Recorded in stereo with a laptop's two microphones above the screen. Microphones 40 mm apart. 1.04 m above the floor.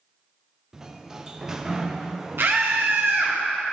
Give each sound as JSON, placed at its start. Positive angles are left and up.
{"t": 0.7, "sound": "a sliding door", "side_deg": -10, "distance_m": 0.5}
{"t": 2.4, "sound": "a scream", "side_deg": -70, "distance_m": 1.4}